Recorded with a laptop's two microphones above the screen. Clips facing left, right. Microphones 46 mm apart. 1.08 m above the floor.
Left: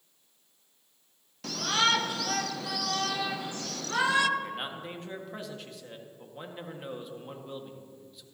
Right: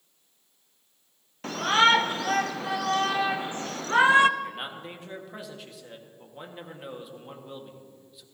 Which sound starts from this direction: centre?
A man speaking, at 4.4 s.